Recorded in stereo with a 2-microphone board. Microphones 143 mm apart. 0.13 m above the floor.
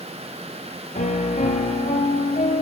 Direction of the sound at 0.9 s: 70° left (ahead or behind).